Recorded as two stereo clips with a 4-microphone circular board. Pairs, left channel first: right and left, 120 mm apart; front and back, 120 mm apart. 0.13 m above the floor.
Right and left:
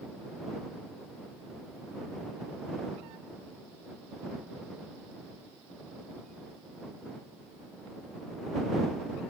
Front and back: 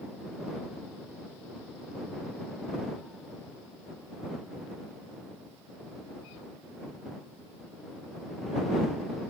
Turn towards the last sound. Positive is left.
No sound to turn to.